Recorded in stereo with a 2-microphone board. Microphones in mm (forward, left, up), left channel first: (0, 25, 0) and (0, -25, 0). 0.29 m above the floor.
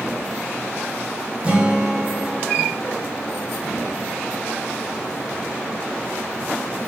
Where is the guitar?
25° right (ahead or behind), 1.4 m.